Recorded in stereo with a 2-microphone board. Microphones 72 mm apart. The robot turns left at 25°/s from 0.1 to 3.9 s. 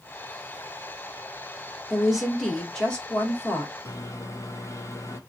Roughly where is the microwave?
Left.